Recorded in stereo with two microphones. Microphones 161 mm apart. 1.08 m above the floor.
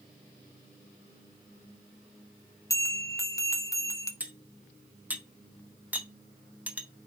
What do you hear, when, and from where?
2.7 s a bell: 20° left (ahead or behind), 0.5 m
4.2 s cutlery clinking: 10° right (ahead or behind), 0.7 m